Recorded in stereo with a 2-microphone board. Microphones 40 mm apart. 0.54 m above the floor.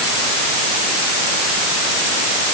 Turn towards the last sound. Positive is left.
No sound to turn to.